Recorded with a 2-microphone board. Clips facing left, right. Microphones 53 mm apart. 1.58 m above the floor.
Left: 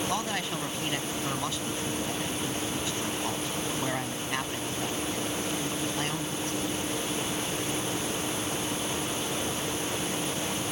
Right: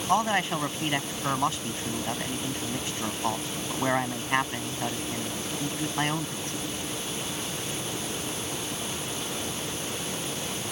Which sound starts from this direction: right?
A man speaking, at 0.1 s.